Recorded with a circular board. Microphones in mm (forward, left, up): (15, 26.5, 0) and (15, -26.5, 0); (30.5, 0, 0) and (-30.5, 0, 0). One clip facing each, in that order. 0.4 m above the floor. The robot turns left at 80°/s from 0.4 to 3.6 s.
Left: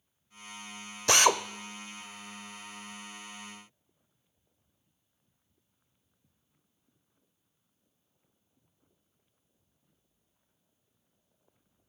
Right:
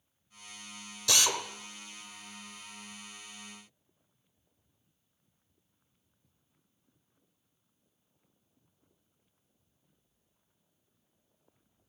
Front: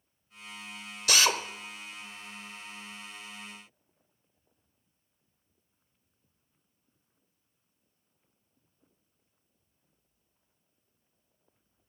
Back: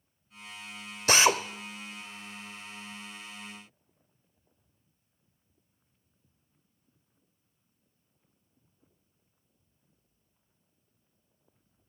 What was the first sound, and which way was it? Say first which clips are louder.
A drill: left 7 dB, back 3 dB; 130° left.